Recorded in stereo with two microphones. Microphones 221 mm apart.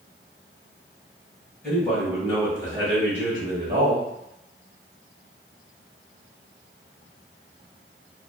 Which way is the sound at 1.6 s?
10° left (ahead or behind).